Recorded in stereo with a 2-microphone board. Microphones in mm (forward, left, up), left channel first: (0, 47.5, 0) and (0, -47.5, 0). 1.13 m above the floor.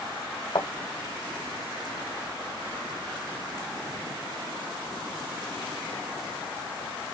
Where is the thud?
60° left (ahead or behind), 1.7 m.